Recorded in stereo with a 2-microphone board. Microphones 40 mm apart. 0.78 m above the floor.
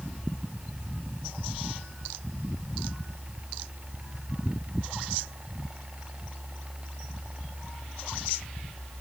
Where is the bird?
No bird in this recording.